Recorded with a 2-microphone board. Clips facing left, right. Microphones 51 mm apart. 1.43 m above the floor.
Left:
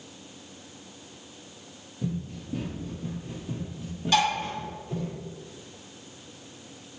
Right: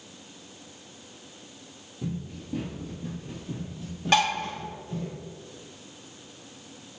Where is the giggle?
I don't hear a giggle.